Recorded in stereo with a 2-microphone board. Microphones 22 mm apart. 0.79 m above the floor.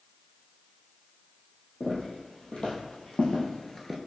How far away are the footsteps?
About 1.9 m.